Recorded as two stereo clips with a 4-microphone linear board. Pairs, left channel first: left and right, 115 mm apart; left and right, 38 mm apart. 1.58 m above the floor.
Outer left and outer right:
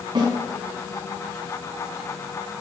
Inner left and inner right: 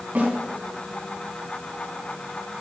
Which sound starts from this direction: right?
A snare drum, at 0.1 s.